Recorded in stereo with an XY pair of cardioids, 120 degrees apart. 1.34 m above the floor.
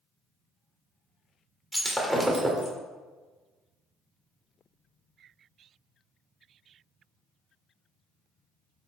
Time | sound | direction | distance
1.7 | breaking glass | 5° right | 2.5 m